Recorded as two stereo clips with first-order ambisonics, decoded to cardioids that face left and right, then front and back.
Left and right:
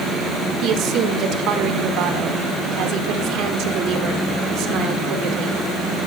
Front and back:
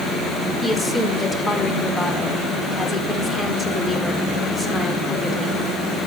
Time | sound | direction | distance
0.6 | a woman speaking | 80° right | 1.3 m